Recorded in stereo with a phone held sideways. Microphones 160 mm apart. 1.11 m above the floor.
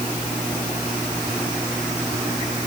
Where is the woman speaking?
I don't hear a woman speaking.